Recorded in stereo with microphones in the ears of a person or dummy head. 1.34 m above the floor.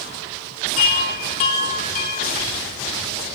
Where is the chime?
30° left (ahead or behind), 1.1 m.